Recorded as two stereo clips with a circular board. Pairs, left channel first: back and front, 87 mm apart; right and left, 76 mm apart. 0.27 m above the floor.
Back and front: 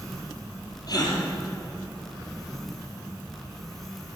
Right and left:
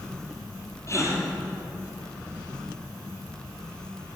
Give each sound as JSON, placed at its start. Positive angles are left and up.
{"t": 0.9, "sound": "a gasp", "azimuth_deg": -140, "distance_m": 3.5}